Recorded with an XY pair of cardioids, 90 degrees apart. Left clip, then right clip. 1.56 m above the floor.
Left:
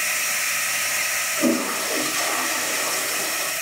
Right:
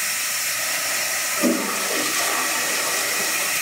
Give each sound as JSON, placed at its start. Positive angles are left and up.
{"t": 1.4, "sound": "a toilet flushing", "azimuth_deg": -15, "distance_m": 1.0}